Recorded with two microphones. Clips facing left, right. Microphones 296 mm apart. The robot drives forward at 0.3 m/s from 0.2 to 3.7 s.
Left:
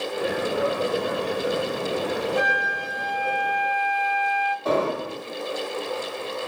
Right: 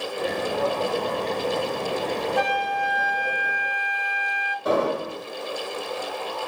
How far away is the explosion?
About 1.5 m.